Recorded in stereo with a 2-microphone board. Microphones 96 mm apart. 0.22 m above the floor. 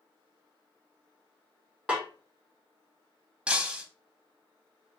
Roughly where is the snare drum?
Centre.